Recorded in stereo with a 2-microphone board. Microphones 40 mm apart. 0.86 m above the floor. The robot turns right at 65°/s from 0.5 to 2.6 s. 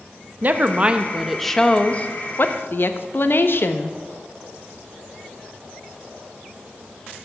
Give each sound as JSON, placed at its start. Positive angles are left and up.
{"t": 0.4, "sound": "a woman speaking", "azimuth_deg": -60, "distance_m": 0.6}